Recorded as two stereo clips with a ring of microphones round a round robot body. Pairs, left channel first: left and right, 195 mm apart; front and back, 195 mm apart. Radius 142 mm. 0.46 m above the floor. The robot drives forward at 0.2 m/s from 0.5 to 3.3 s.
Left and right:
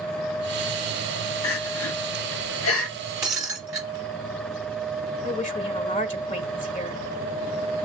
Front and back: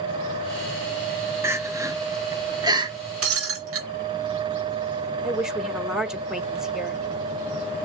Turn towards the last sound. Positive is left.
turn(degrees=95)